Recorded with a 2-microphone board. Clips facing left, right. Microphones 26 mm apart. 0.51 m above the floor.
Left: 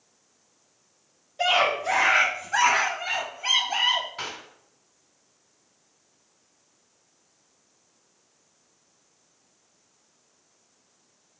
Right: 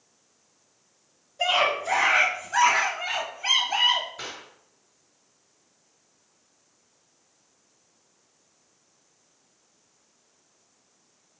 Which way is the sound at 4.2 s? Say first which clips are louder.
Left 3 dB; 70° left (ahead or behind).